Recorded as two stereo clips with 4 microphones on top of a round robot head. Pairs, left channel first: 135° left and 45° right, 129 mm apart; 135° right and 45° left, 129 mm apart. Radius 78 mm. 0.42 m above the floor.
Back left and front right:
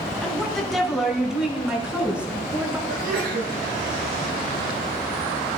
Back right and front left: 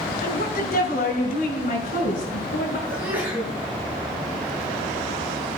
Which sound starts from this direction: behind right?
A woman speaking, at 0.2 s.